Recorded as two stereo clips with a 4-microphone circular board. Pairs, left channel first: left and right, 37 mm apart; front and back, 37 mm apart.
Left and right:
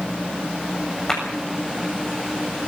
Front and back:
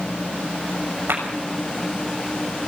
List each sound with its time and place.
1.1 s a clap: 165° left, 8 m